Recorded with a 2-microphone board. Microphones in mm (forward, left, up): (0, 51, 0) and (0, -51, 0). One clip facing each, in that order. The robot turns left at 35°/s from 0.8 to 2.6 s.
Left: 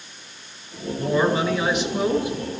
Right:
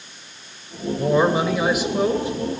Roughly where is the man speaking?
Behind right.